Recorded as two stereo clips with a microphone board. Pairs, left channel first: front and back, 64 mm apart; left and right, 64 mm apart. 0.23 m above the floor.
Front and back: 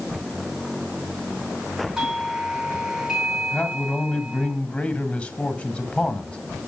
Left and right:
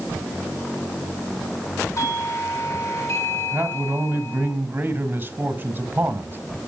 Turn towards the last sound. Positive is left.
turn(degrees=-50)